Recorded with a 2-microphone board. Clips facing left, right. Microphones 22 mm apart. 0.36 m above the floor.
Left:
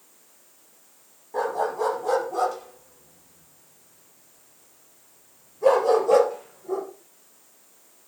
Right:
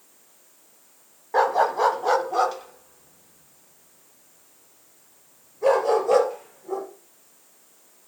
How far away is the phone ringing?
No phone ringing in this recording.